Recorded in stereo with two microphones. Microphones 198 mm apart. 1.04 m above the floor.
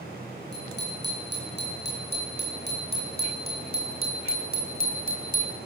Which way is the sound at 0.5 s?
60° left (ahead or behind).